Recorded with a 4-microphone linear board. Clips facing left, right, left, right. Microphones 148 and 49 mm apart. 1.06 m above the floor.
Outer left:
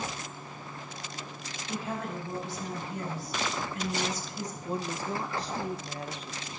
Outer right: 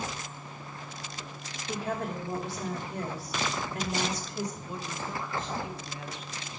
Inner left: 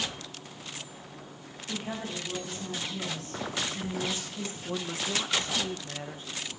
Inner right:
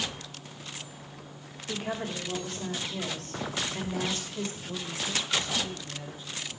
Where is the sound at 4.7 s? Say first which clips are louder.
Outer left 4 dB, inner left 2 dB; 35° left (ahead or behind), 0.7 m.